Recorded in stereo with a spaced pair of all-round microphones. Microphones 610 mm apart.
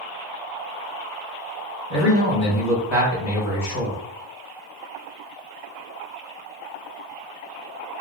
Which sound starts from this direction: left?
A man speaking, at 1.9 s.